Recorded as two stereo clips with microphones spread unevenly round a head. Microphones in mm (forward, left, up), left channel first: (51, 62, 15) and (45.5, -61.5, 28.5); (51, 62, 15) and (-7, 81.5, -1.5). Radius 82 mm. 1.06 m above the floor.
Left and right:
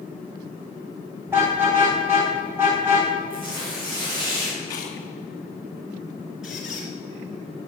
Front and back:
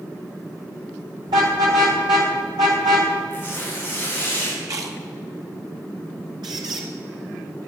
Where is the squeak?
175° right, 2 m.